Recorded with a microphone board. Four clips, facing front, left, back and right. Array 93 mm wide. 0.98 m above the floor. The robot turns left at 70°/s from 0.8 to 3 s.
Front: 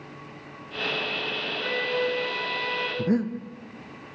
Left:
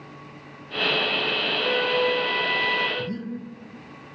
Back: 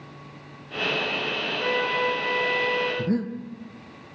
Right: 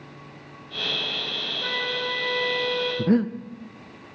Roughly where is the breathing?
Right.